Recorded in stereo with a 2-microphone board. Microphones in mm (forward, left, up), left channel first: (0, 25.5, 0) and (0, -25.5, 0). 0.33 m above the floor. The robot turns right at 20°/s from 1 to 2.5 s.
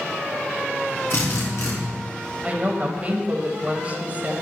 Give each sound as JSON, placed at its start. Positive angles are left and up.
{"t": 1.1, "sound": "a drill", "side_deg": 65, "distance_m": 2.5}
{"t": 2.4, "sound": "a woman speaking", "side_deg": -30, "distance_m": 1.2}